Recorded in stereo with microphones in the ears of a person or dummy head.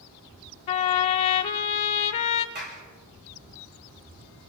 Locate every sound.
0.7 s a trumpet: 25° left (ahead or behind), 1.0 m
2.5 s a clap: 45° right (ahead or behind), 4.5 m